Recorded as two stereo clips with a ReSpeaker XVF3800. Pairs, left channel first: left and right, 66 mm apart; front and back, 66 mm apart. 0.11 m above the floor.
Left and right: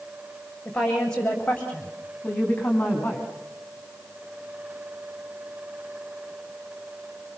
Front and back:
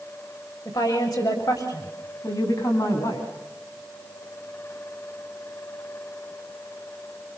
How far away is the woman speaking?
About 6.5 m.